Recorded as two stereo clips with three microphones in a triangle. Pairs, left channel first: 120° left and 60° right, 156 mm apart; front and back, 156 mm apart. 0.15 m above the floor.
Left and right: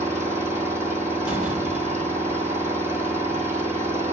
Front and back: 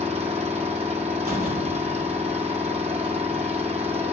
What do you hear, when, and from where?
0.0 s an engine running: 135° right, 2 m
1.3 s a door slam: 140° right, 3 m